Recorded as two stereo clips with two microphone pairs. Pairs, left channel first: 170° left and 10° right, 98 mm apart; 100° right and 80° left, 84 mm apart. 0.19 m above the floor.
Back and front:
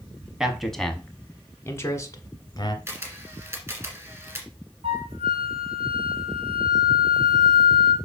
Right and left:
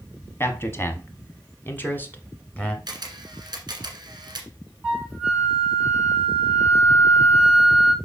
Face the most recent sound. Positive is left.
turn(degrees=0)